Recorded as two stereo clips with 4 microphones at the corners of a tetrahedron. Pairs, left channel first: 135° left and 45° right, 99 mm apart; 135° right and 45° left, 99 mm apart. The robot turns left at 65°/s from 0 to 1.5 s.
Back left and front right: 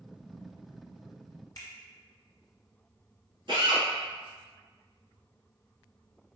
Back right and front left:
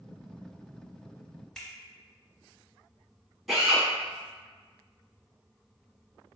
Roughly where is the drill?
Ahead right.